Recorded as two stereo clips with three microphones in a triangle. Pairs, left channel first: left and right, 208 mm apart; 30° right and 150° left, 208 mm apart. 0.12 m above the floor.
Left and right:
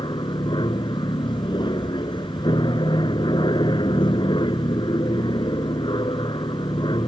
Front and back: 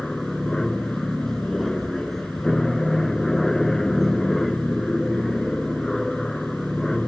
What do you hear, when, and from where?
0.0 s an aircraft: 55° left